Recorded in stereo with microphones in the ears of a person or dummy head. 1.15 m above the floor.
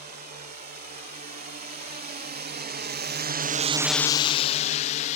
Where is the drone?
40° right (ahead or behind); by 5.2 s 35° left (ahead or behind).